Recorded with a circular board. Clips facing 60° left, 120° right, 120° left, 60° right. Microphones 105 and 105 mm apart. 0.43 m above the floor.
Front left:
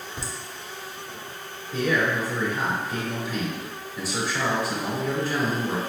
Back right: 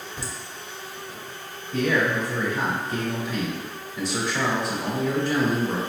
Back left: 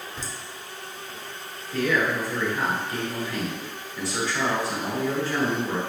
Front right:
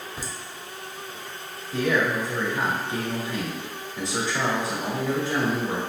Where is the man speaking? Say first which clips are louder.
Back right 1 dB, front right 1 dB; 20° right, 1.4 m.